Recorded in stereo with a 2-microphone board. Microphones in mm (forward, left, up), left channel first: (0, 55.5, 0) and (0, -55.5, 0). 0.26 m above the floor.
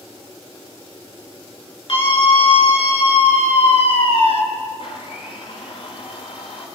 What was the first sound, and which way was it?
A scream, 60° left (ahead or behind).